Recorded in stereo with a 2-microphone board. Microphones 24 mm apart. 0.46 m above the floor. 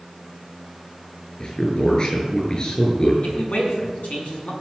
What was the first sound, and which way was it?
A man speaking, 40° left (ahead or behind).